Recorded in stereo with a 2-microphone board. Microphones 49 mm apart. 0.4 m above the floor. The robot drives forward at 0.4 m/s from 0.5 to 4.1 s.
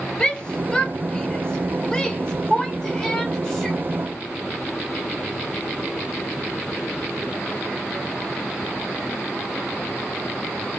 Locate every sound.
0.2 s a shout: 15° left (ahead or behind), 1.3 m; by 3.8 s 10° left (ahead or behind), 1.7 m